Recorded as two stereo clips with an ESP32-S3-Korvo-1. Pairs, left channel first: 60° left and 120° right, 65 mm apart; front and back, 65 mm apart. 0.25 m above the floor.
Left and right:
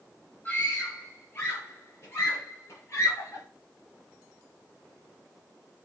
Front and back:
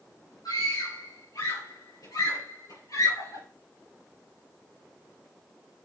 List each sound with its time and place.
0.5 s a scream: straight ahead, 5 m; by 3.4 s 20° left, 6 m